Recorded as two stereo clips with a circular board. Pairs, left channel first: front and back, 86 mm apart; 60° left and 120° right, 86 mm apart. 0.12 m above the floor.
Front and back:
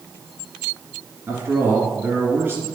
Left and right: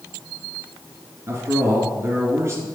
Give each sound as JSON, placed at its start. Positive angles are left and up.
{"t": 1.3, "sound": "a man speaking", "azimuth_deg": -140, "distance_m": 1.8}